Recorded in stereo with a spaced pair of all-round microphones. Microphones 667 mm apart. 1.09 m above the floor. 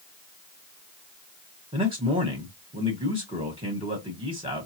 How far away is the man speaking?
About 1.3 m.